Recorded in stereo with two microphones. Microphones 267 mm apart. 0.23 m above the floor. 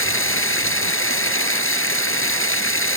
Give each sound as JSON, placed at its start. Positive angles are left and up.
{"t": 0.0, "sound": "running water", "side_deg": 50}